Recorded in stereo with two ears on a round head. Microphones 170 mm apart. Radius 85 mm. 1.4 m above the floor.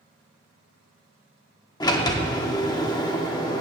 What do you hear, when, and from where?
1.8 s a sliding door: 20° left (ahead or behind), 1.0 m